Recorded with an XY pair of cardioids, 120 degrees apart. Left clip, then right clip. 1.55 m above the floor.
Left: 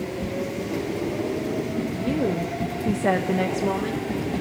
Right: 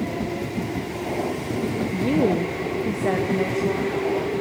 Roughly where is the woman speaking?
Ahead right.